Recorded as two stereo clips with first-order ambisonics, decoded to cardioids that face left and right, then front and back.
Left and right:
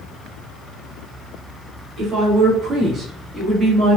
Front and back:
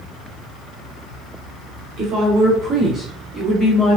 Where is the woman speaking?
145° right, 1.2 m; by 4.0 s straight ahead, 1.0 m.